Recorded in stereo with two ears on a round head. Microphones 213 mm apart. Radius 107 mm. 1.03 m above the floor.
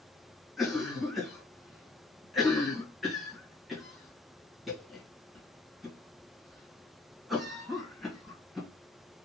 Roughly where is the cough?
Centre.